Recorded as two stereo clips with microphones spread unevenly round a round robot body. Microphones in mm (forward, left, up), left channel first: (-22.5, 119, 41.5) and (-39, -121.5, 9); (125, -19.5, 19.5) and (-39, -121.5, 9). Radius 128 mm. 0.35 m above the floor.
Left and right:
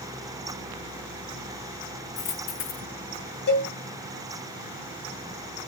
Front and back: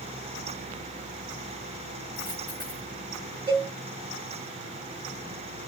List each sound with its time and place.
2.2 s a dropped coin: 125° left, 3.5 m
3.5 s a cowbell: 130° left, 3 m